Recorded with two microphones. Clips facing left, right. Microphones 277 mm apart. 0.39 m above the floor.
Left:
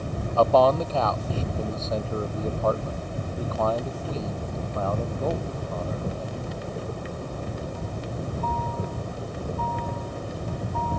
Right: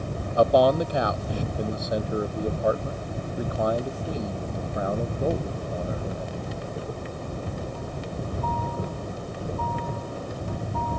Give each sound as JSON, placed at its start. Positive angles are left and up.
{"t": 0.4, "sound": "a man speaking", "side_deg": -15}